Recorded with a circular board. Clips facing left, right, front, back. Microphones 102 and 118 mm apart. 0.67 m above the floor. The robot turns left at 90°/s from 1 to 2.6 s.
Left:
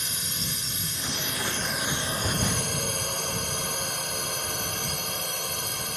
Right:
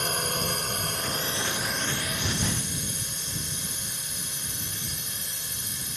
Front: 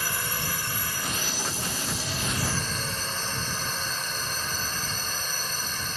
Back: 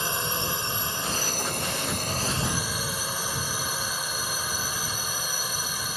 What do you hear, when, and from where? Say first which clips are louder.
0.0 s a drone: right 8 dB, back 3 dB; 115° right; by 6.0 s 100° left